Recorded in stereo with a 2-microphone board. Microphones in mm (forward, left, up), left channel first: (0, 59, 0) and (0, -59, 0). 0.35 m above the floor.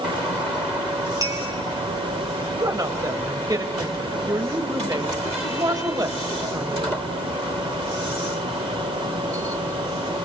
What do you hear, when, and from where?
1.2 s a clink: 35° right (ahead or behind), 3 m
2.5 s a woman speaking: 35° right (ahead or behind), 1.7 m